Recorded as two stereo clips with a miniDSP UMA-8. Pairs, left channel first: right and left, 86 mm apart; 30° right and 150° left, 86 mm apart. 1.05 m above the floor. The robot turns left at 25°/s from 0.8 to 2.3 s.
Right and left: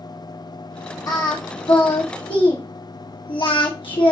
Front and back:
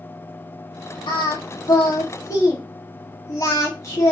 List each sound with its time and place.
1.1 s singing: 50° right, 1.3 m; by 4.1 s 80° right, 1.3 m